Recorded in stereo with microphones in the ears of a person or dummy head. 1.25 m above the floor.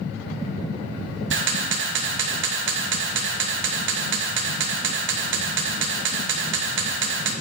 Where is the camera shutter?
65° right (ahead or behind), 1.1 m.